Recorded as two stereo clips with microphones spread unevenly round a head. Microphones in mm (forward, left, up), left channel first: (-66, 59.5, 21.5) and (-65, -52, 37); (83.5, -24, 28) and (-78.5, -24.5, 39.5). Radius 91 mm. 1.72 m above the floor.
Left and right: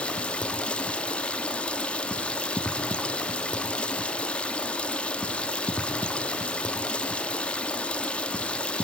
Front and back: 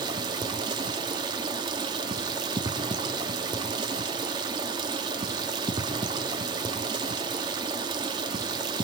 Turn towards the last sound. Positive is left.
turn(degrees=175)